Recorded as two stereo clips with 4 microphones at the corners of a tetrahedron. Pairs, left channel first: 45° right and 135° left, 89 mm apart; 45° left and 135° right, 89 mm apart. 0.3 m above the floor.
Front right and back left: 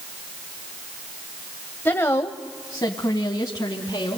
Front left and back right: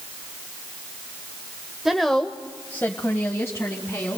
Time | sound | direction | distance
1.9 | a woman speaking | 55° right | 1.0 m